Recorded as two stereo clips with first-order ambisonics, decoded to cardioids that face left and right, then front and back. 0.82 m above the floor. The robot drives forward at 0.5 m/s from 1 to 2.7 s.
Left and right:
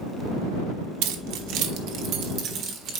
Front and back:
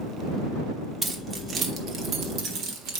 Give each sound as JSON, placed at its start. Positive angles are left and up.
{"t": 1.0, "sound": "keys jangling", "azimuth_deg": -100, "distance_m": 1.0}